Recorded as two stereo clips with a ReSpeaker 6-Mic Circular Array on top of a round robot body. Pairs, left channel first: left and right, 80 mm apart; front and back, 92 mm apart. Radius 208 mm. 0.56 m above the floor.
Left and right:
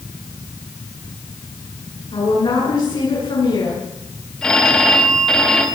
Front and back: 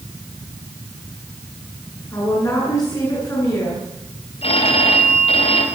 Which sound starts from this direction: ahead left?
A woman speaking, at 2.1 s.